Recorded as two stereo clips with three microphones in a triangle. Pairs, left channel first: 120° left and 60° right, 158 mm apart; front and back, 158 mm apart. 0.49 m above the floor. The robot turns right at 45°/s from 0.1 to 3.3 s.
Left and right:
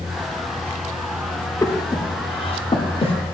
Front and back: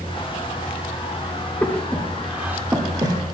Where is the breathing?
70° left, 0.9 m; by 3.1 s 135° left, 0.9 m.